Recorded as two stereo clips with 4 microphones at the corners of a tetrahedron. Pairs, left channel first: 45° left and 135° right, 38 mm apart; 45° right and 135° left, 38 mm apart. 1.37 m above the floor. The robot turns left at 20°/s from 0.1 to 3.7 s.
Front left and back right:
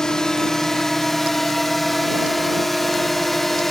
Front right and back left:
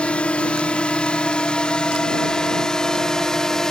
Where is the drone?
15° right; by 3.7 s 20° right.